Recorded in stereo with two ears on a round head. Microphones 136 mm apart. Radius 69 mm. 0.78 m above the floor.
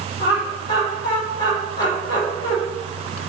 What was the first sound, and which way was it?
Laughter, 30° left (ahead or behind).